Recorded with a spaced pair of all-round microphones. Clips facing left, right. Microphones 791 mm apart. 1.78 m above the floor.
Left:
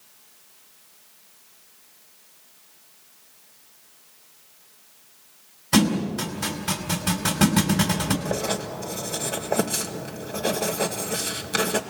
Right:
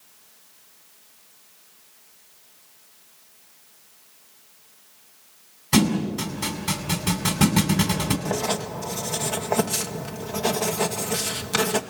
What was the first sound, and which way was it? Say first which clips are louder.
A thud: even; 15° right (ahead or behind).